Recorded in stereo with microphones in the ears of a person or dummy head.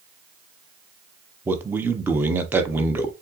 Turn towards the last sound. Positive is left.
turn(degrees=-10)  # may be behind; listen again after turning